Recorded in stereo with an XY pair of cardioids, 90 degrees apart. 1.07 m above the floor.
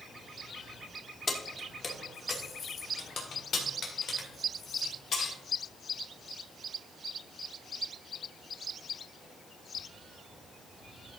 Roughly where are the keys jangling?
Ahead left.